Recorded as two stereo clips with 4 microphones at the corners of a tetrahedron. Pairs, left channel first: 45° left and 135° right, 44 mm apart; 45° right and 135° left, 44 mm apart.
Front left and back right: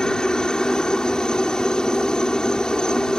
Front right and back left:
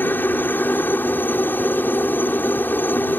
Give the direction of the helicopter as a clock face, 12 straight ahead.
1 o'clock.